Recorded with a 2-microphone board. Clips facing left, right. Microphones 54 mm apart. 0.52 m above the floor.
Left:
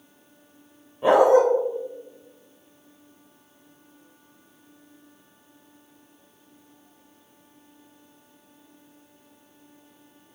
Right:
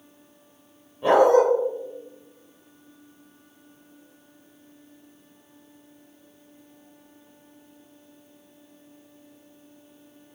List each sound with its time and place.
1.0 s a dog barking: 15° left (ahead or behind), 6.5 m